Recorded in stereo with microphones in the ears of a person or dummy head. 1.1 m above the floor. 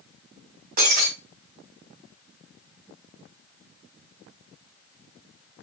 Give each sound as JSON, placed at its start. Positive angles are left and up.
{"t": 0.8, "sound": "breaking glass", "side_deg": -45, "distance_m": 4.0}